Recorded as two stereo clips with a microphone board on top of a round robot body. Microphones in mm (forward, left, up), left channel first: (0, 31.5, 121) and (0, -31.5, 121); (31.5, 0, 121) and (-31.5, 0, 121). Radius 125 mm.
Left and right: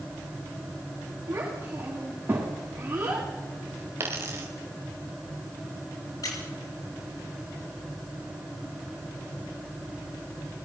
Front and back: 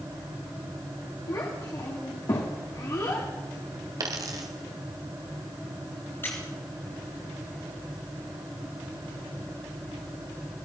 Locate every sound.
1.3 s a child speaking: 35° right, 3 m
4.0 s a dropped coin: 145° right, 1.5 m
6.2 s a squeak: 60° left, 3 m